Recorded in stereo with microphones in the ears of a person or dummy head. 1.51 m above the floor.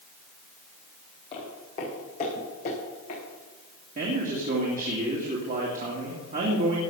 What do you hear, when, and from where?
1.3 s footsteps: 35° left (ahead or behind), 5 m; by 3.2 s 45° left (ahead or behind), 7.5 m
4.0 s a man speaking: 40° right (ahead or behind), 2.5 m